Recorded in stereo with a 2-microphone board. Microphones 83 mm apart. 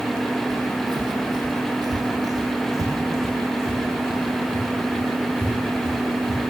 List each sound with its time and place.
0.5 s footsteps: 55° right (ahead or behind), 1.1 m; by 6.4 s 20° right (ahead or behind), 4 m